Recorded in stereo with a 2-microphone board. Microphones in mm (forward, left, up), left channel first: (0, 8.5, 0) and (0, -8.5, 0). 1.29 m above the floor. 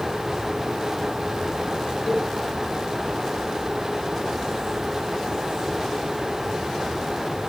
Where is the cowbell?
70° left (ahead or behind), 3 m.